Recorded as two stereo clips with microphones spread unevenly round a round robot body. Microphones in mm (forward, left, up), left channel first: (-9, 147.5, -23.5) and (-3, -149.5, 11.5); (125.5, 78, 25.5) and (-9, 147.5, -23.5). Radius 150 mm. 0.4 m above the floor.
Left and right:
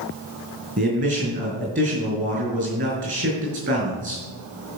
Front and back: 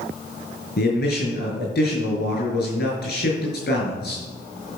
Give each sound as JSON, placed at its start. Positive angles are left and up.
{"t": 0.8, "sound": "a man speaking", "azimuth_deg": -35, "distance_m": 6.5}